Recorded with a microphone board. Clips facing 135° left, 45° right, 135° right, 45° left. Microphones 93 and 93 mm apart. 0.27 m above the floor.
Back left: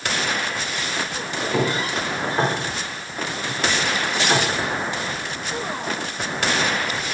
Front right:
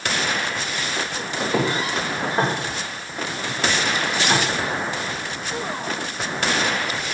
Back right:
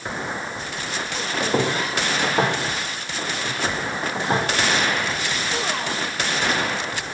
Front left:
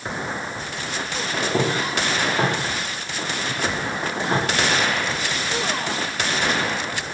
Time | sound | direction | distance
1.4 | footsteps | 120° right | 6.5 m